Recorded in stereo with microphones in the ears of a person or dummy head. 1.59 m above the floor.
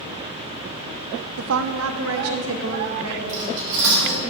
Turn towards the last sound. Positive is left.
turn(degrees=-70)  # may be behind; listen again after turning